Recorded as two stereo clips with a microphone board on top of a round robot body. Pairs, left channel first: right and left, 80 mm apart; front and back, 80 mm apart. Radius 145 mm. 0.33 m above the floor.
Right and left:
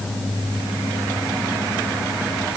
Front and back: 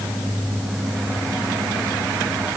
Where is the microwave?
No microwave in this recording.